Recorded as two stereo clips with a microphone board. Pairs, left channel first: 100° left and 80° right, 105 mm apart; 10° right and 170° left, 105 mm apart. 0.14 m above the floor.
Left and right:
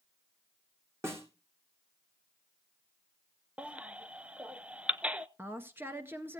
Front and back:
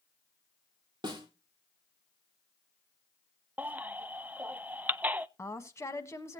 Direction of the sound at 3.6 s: 135° right.